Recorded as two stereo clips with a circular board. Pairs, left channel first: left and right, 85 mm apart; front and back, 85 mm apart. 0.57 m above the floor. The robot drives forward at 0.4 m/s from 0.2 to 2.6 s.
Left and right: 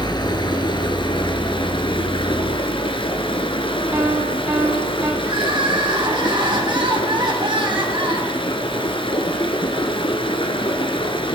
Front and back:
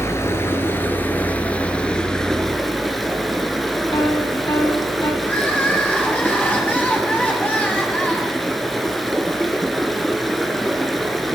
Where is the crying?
70° right, 3 m.